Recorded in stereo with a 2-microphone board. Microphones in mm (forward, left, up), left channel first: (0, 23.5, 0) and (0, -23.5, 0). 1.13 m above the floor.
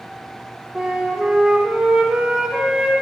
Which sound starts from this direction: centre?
A flute, at 0.8 s.